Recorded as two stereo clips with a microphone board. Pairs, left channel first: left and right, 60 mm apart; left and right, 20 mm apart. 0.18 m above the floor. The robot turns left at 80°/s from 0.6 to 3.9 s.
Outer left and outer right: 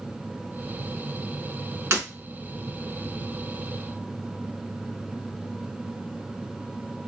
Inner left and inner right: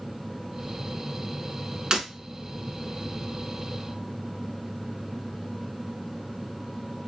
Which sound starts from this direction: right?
Breaking glass, at 1.9 s.